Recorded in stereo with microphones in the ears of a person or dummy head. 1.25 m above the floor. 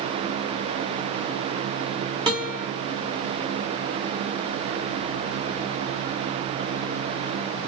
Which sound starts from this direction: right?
A guitar, at 2.3 s.